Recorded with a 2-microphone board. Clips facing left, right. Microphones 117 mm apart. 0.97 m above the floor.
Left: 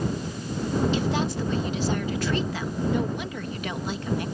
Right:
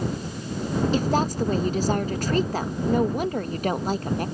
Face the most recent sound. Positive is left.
turn(degrees=-45)  # may be behind; listen again after turning